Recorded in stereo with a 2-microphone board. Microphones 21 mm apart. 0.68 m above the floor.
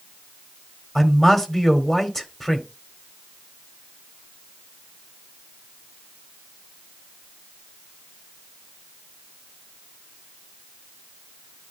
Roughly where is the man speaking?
Centre.